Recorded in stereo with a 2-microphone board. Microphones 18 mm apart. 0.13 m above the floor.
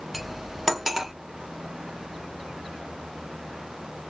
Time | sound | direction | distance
0.1 | cutlery clinking | 15° right (ahead or behind) | 0.6 m